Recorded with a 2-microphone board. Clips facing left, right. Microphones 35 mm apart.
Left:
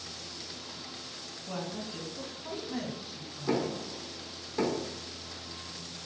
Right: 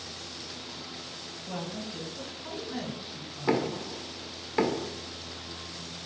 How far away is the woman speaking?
About 3 m.